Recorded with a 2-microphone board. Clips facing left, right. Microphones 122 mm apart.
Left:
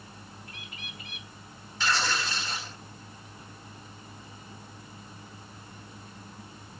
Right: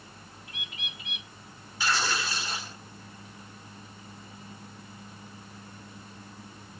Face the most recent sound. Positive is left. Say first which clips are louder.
# even
turn(degrees=-10)  # may be behind; listen again after turning